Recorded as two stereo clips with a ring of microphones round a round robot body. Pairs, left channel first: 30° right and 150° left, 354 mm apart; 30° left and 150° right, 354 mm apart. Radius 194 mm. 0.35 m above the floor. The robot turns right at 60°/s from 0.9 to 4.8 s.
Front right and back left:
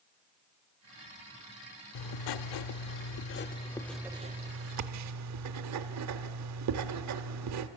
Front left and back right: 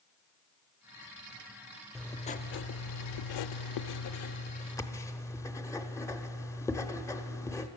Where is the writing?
60° right, 0.6 m; by 7.7 s 110° left, 0.6 m.